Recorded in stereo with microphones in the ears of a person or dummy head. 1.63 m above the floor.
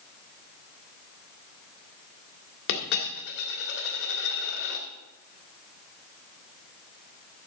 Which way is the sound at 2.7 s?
60° left (ahead or behind).